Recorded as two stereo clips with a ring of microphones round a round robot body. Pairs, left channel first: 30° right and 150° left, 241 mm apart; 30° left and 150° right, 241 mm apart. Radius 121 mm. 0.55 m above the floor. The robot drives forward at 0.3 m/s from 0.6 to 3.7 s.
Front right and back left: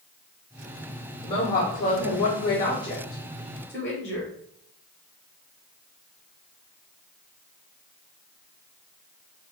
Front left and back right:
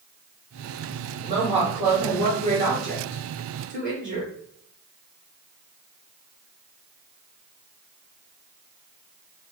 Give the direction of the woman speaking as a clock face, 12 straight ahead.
3 o'clock.